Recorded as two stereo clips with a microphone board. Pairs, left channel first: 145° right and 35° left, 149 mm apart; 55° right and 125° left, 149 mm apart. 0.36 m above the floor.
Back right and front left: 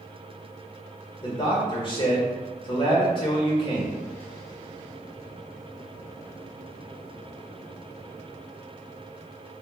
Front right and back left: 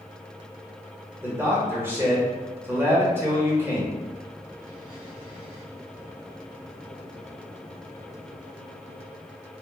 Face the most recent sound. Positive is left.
turn(degrees=-170)